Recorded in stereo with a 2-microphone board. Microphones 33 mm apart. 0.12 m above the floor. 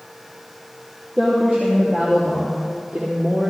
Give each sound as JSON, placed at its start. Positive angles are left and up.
{"t": 1.2, "sound": "a woman speaking", "side_deg": -20, "distance_m": 4.5}